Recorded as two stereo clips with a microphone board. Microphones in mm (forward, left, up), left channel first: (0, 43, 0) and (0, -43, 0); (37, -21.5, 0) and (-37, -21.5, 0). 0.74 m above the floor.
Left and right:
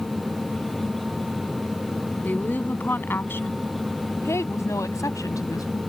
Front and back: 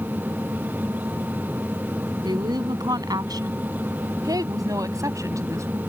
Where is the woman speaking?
160° left; by 5.8 s 135° left.